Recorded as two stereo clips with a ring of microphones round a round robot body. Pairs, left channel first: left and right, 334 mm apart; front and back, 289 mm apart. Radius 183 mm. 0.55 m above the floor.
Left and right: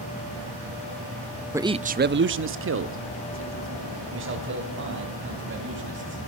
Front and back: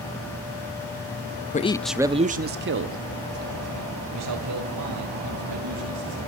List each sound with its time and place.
1.5 s a man speaking: 15° right, 0.7 m; by 6.2 s 145° right, 4 m